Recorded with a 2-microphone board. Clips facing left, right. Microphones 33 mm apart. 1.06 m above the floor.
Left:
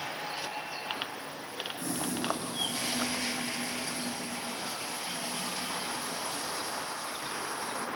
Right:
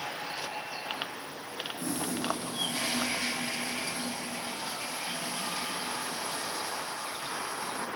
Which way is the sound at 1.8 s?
25° right (ahead or behind).